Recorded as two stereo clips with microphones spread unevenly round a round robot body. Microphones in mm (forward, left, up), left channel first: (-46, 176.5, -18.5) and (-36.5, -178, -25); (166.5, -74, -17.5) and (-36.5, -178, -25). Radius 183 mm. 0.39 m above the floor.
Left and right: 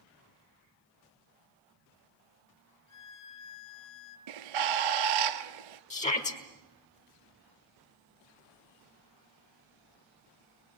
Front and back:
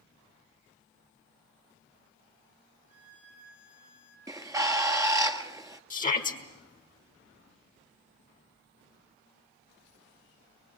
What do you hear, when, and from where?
2.9 s a violin: 95° left, 1.9 m
4.3 s a bird: 75° right, 1.7 m
5.9 s a shout: 35° left, 1.6 m